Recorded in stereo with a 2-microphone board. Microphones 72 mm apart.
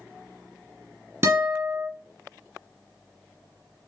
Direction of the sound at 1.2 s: 30° right (ahead or behind).